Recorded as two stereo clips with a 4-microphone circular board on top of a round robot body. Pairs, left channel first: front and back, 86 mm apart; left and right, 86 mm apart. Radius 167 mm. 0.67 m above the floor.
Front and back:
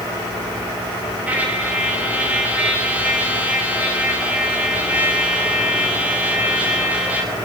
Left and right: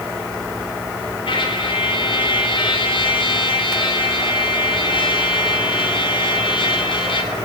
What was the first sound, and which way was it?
A trumpet, 105° left.